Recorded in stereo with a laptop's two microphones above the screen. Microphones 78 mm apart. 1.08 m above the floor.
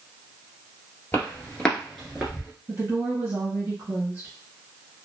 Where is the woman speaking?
35° right (ahead or behind), 1.4 m.